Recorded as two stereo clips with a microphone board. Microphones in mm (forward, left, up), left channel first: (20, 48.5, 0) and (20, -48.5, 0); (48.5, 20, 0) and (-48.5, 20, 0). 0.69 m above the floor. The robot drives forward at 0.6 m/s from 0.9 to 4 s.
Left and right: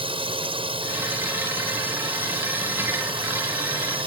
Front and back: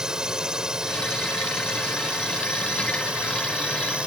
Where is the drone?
100° right.